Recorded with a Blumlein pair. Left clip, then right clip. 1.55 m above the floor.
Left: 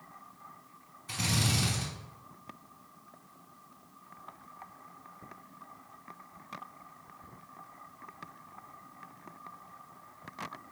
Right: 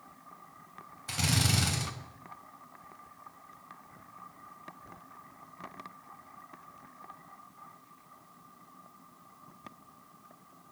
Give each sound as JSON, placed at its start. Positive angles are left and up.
{"t": 1.1, "sound": "a drill", "azimuth_deg": -60, "distance_m": 2.5}